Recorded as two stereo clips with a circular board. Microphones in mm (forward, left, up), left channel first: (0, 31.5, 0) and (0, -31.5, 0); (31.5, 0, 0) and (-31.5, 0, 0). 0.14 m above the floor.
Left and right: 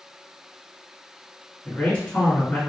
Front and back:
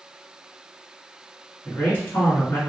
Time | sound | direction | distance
1.6 | a man speaking | 35° left | 1.3 m